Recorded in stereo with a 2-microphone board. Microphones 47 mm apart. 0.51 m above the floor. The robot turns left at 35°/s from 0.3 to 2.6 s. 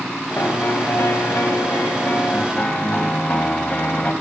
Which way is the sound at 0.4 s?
110° left.